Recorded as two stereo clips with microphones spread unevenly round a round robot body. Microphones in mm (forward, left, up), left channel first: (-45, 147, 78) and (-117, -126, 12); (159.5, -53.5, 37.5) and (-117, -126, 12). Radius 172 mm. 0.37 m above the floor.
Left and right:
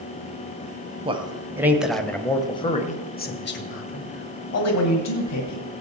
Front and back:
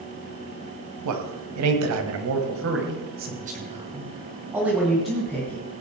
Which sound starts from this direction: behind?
A man speaking, at 1.1 s.